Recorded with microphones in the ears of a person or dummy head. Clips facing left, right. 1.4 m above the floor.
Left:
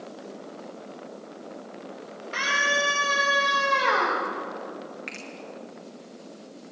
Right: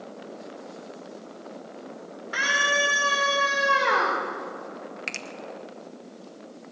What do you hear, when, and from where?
2.3 s a scream: 10° right (ahead or behind), 5 m
5.1 s a finger snap: 50° right (ahead or behind), 0.9 m